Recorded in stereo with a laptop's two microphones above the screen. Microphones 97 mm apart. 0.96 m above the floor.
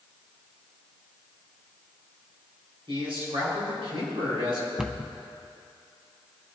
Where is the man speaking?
60° right (ahead or behind), 5.5 m.